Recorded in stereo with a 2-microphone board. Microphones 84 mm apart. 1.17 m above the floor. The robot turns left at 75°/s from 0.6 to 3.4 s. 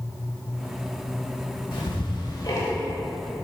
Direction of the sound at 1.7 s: 70° left (ahead or behind).